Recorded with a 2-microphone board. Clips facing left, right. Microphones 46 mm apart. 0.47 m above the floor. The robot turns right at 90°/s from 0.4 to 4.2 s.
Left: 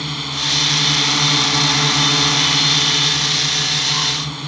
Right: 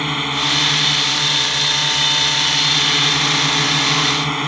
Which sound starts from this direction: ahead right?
A drone, at 0.0 s.